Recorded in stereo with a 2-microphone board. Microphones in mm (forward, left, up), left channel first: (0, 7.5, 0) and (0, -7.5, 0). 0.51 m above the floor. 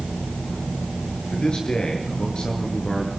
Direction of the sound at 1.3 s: 70° left (ahead or behind).